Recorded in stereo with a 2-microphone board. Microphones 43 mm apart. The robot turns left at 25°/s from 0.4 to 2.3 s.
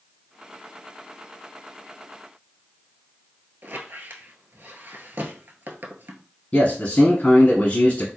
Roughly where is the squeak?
Right.